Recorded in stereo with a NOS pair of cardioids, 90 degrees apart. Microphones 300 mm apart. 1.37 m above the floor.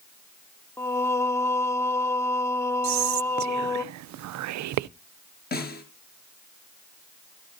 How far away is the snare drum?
About 5 m.